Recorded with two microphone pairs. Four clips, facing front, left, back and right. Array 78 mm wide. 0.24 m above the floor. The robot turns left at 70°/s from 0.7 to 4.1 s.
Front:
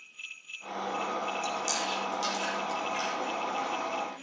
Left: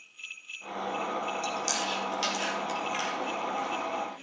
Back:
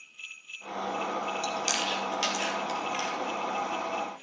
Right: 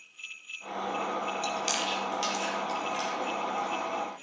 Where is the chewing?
140° right, 3 m; by 4.2 s 35° left, 3 m.